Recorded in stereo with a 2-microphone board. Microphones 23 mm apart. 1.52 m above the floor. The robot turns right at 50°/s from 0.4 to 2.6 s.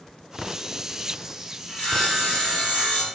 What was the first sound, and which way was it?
Sawing, 60° left.